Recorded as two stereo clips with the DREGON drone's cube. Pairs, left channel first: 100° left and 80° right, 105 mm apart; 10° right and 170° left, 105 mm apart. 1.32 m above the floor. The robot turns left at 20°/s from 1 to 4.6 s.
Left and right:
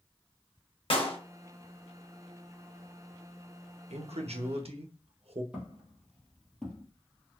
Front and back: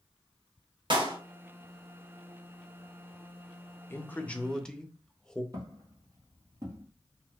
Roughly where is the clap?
Behind left.